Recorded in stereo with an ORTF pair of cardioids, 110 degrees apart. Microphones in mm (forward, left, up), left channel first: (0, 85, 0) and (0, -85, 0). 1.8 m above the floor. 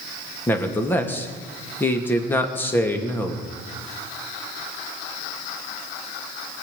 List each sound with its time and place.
0.5 s a man speaking: 10° left, 2.5 m